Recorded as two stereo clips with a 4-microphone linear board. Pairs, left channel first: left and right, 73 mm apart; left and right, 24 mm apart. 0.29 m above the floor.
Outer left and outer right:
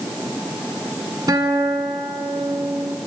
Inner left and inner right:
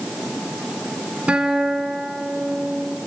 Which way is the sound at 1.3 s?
65° right (ahead or behind).